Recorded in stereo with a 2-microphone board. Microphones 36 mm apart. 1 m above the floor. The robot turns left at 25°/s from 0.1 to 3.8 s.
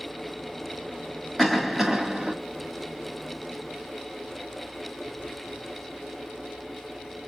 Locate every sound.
1.4 s a cough: 5° right (ahead or behind), 1.0 m; by 2.3 s 25° right (ahead or behind), 1.0 m